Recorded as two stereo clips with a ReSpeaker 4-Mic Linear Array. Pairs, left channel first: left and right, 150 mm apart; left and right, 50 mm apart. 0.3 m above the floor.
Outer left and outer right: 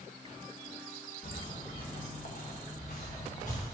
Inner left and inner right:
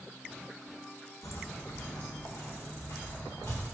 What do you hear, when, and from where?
1.2 s footsteps: 75° left (ahead or behind), 1.2 m; by 3.6 s 60° left (ahead or behind), 3 m